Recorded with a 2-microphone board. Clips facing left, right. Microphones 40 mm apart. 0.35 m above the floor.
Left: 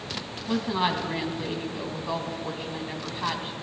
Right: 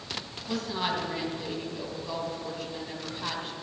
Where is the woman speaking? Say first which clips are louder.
Left 5 dB; 25° left (ahead or behind), 2.5 m.